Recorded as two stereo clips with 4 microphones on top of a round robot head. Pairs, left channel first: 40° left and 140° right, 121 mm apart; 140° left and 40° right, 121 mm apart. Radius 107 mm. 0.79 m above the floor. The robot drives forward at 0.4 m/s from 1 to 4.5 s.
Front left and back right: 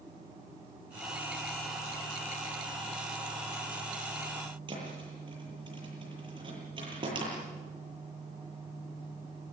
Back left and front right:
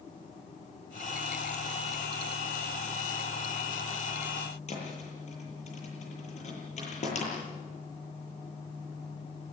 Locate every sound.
4.7 s a thud: 170° left, 9 m